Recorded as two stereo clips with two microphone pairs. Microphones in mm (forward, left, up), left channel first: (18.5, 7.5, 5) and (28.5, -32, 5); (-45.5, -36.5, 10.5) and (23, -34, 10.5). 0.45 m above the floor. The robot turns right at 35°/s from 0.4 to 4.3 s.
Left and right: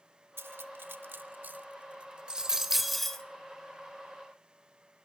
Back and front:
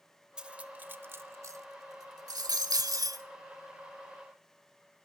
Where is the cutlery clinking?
75° right, 0.8 m; by 3.2 s 25° left, 0.8 m.